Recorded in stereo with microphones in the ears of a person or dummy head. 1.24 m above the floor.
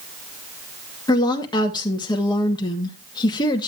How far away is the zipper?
I don't hear a zipper.